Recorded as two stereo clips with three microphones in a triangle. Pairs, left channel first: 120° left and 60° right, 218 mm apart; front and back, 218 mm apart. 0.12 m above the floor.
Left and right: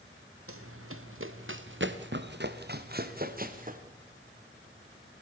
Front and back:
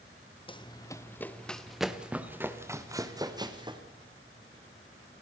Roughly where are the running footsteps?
Ahead right.